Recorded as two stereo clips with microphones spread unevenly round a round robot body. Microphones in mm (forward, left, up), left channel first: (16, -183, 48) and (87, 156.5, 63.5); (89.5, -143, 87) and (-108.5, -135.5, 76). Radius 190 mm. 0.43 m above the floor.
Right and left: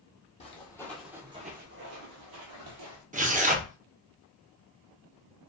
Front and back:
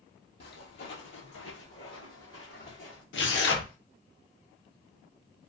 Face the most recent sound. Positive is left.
turn(degrees=10)